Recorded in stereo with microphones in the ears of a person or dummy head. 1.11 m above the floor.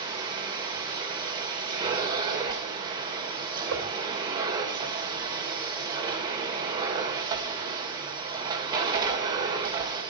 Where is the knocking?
60° right (ahead or behind), 3.5 m.